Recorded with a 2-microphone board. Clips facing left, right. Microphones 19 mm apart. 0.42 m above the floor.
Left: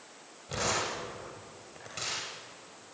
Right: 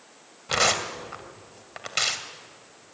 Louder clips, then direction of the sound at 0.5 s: Right 8 dB; 60° right (ahead or behind).